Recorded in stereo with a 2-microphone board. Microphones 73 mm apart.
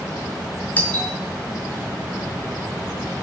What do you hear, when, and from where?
0.8 s a doorbell: 20° left (ahead or behind), 2.5 m